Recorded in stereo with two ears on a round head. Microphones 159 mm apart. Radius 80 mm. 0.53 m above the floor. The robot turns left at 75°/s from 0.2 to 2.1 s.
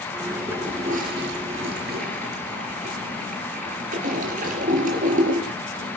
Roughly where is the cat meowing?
No cat meowing in this recording.